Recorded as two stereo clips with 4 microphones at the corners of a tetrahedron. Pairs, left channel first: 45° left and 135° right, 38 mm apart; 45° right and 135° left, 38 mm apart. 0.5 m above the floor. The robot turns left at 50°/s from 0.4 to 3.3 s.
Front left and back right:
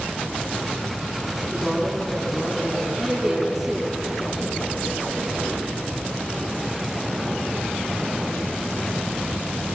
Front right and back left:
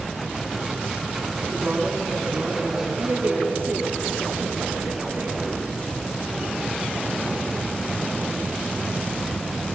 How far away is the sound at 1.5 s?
About 5.5 m.